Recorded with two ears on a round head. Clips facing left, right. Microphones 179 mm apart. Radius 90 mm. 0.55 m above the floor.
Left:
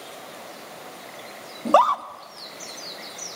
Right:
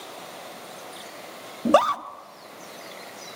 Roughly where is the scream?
Right.